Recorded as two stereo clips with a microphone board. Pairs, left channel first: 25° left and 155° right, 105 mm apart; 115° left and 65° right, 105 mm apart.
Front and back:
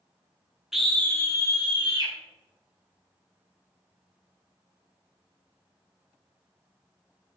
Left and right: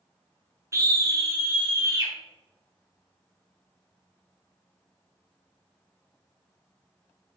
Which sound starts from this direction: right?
A scream, at 0.7 s.